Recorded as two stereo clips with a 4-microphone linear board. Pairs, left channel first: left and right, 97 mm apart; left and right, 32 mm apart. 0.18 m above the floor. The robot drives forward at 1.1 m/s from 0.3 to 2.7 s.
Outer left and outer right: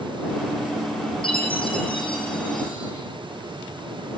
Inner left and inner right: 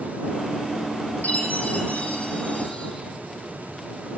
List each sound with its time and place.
1.2 s a chime: 60° left (ahead or behind), 6 m; by 2.9 s 50° left (ahead or behind), 7 m